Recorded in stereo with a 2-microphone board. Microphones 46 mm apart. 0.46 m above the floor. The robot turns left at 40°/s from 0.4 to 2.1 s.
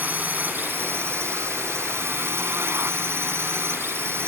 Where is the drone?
45° right; by 4.3 s 110° right.